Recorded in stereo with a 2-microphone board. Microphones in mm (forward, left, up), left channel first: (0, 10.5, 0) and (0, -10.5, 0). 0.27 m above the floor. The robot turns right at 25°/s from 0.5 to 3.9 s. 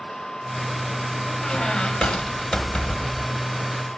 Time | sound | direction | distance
1.4 | a squeak | 70° left | 0.5 m